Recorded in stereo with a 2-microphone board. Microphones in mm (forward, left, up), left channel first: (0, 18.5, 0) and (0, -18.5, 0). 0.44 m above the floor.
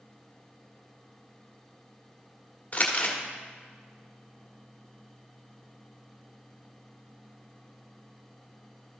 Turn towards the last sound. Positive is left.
turn(degrees=40)  # may be behind; listen again after turning